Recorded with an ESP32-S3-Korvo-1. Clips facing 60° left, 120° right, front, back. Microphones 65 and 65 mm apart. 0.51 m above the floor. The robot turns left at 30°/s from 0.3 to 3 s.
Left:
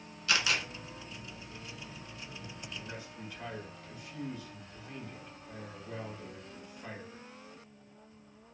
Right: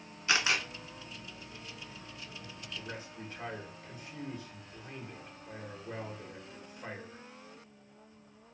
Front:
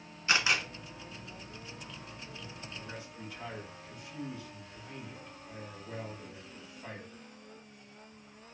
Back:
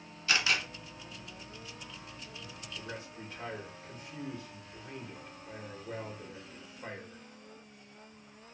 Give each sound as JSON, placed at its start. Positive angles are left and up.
{"t": 0.3, "sound": "a camera shutter", "azimuth_deg": -60, "distance_m": 0.8}
{"t": 2.8, "sound": "a man speaking", "azimuth_deg": -135, "distance_m": 1.2}